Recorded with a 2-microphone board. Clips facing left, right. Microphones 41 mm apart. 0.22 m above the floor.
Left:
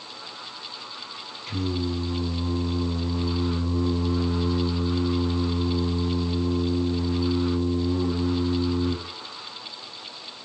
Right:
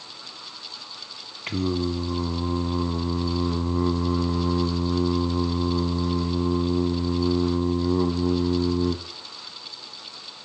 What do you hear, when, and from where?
1.5 s singing: 55° right (ahead or behind), 0.8 m